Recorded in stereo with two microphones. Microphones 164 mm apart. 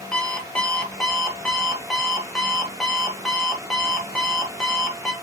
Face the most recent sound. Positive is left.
turn(degrees=5)  # may be behind; listen again after turning